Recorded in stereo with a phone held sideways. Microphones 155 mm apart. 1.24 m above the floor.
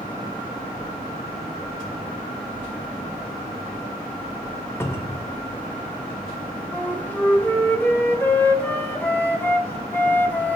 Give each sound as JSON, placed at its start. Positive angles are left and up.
{"t": 4.8, "sound": "a cupboard door", "side_deg": 15, "distance_m": 0.8}
{"t": 6.7, "sound": "a flute", "side_deg": 10, "distance_m": 0.6}